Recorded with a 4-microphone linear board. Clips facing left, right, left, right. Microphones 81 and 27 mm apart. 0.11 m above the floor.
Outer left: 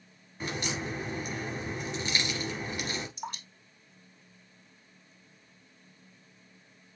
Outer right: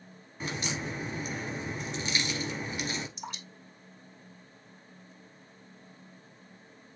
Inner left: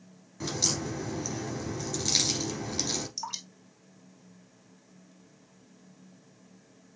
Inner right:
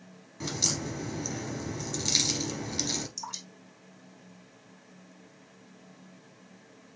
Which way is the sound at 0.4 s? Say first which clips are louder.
Outer left 1 dB, inner left 1 dB; centre (ahead or behind).